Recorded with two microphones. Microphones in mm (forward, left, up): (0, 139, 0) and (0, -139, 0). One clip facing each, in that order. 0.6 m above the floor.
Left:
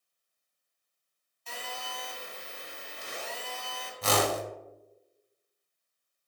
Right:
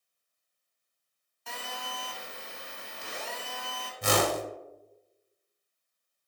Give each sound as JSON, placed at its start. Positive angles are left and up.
{"t": 1.5, "sound": "a phone buzzing", "side_deg": -65, "distance_m": 1.0}
{"t": 4.0, "sound": "a whoosh", "side_deg": -20, "distance_m": 0.5}